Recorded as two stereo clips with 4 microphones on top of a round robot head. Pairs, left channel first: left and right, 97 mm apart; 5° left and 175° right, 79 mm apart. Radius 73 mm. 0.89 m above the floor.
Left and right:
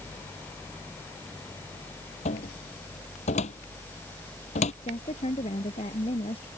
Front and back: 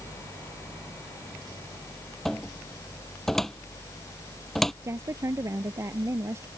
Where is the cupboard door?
90° left.